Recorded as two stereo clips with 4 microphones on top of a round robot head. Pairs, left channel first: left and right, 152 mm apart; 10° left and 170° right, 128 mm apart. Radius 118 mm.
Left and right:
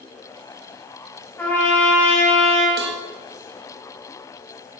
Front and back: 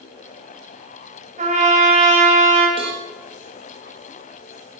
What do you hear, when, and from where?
1.4 s a trumpet: 170° left, 3.5 m
2.8 s a cowbell: 110° right, 1.2 m